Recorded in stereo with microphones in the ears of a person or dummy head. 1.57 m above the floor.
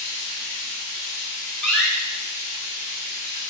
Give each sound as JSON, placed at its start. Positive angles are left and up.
{"t": 0.0, "sound": "running water", "side_deg": 25, "distance_m": 3.0}
{"t": 1.6, "sound": "a door slam", "side_deg": 10, "distance_m": 1.5}